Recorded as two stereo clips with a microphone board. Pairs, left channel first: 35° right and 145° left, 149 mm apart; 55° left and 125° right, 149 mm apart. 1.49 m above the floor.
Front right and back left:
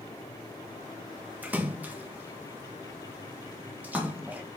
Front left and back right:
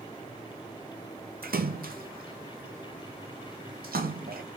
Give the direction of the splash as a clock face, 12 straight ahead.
5 o'clock.